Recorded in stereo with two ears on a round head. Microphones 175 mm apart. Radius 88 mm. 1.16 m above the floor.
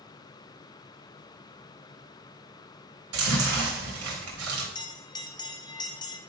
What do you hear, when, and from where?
3.1 s chewing: 90° right, 3 m
4.8 s a bell: 20° left (ahead or behind), 0.7 m